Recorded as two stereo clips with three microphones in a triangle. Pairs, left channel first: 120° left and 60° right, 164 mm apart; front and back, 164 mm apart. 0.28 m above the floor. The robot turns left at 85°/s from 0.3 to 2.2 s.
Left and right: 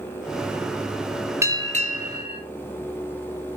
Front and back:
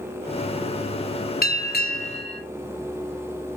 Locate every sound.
1.4 s a bell: 15° left, 0.8 m; by 2.4 s 55° right, 0.8 m